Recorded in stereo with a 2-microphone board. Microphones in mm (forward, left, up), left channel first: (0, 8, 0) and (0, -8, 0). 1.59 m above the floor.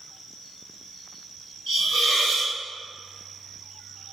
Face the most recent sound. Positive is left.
turn(degrees=15)  # may be behind; listen again after turning